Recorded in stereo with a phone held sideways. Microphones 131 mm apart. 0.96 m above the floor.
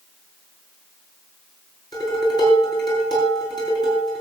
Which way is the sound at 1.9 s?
30° left (ahead or behind).